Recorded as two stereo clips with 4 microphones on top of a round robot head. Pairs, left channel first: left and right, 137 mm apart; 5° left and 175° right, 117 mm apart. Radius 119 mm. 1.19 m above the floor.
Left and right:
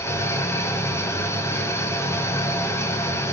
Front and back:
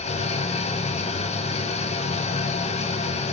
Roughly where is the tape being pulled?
No tape being pulled in this recording.